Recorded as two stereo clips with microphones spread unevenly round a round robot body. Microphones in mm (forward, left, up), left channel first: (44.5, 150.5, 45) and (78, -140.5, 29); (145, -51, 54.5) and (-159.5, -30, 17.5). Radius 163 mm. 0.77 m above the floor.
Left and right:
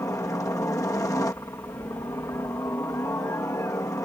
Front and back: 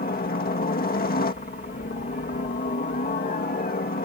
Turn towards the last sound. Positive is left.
turn(degrees=25)